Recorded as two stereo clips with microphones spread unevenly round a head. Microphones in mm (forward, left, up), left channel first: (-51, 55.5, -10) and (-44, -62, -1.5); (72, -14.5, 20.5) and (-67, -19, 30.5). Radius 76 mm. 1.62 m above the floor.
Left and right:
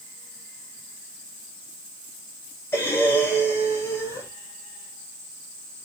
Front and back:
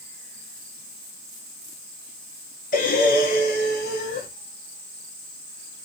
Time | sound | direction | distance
2.7 | breathing | 25° left | 1.4 m